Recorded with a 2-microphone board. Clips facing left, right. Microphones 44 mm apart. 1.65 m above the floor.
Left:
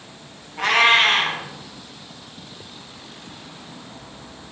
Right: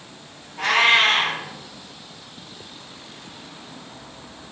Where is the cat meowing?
30° left (ahead or behind), 1.0 m.